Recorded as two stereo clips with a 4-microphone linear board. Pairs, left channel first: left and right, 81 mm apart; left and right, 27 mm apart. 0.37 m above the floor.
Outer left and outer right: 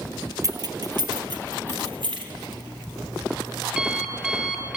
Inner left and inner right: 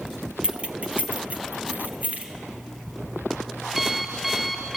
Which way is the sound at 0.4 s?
45° right (ahead or behind).